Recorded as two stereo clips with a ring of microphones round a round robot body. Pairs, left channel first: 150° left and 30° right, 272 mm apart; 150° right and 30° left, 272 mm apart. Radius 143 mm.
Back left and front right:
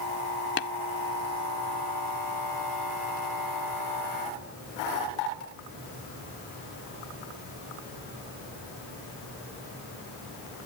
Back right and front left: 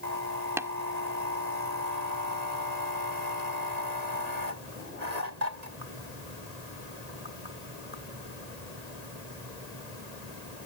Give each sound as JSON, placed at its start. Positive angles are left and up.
{"t": 0.6, "sound": "tapping", "azimuth_deg": 110}